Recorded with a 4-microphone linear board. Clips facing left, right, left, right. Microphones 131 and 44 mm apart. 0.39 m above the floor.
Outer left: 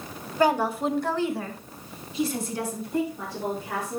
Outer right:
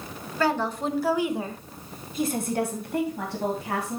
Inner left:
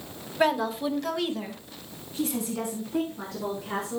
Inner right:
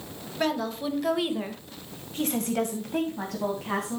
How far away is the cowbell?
No cowbell in this recording.